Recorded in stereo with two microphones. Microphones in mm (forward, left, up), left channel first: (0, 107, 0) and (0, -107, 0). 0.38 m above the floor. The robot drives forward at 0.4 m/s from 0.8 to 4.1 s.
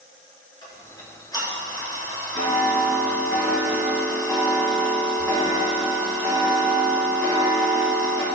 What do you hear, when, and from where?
0.6 s ticking: 20° left (ahead or behind), 3 m; by 8.2 s 15° left (ahead or behind), 4 m